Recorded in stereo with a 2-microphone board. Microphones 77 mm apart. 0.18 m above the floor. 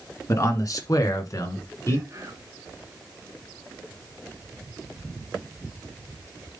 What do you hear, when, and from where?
0.3 s a man speaking: 45° left (ahead or behind), 2.5 m; by 2.0 s 40° left (ahead or behind), 2.5 m
2.1 s whispering: 40° right (ahead or behind), 1.7 m